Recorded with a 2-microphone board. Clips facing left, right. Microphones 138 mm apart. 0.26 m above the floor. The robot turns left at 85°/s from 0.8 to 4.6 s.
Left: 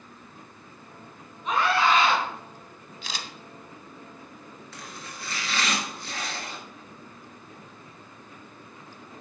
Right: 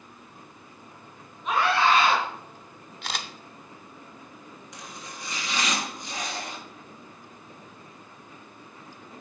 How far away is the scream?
About 3 m.